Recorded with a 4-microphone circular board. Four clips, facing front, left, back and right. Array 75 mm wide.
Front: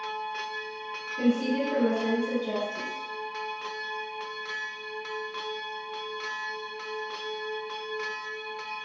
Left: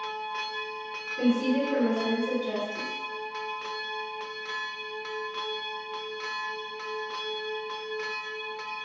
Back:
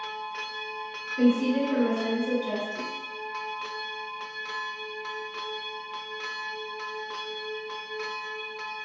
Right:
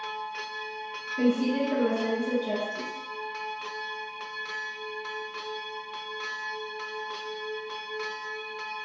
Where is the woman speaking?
165° right, 1.5 m.